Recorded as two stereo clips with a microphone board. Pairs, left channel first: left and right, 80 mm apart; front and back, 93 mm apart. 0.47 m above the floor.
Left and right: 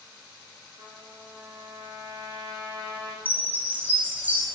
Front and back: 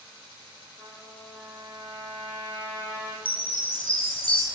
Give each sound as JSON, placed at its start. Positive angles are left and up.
{"t": 0.8, "sound": "a trumpet", "azimuth_deg": -60, "distance_m": 2.0}
{"t": 3.2, "sound": "a chime", "azimuth_deg": -20, "distance_m": 3.0}